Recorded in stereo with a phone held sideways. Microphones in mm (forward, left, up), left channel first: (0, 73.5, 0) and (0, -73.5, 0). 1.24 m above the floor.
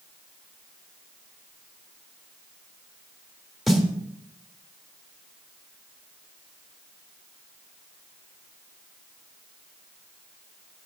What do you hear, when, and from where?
3.7 s a snare drum: centre (ahead or behind), 1.5 m